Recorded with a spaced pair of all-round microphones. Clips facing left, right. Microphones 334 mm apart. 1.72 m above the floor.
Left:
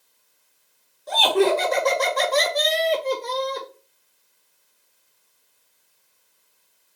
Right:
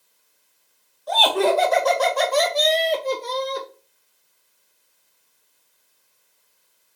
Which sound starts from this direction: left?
Laughter, at 1.1 s.